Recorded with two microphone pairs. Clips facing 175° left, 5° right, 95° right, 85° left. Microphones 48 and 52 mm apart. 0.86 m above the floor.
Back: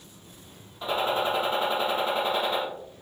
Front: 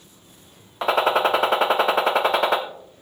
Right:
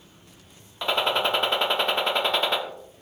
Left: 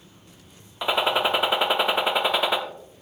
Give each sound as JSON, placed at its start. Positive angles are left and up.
{"t": 0.8, "sound": "a gunshot", "azimuth_deg": 5, "distance_m": 0.9}